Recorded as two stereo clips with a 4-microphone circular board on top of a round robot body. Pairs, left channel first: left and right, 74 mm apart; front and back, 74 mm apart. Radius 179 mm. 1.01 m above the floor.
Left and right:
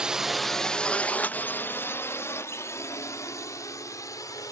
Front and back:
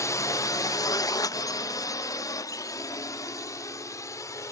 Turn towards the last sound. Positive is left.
turn(degrees=45)